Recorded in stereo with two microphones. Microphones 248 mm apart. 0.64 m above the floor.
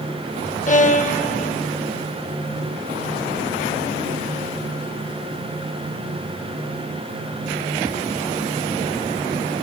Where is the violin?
30° left (ahead or behind), 0.5 m.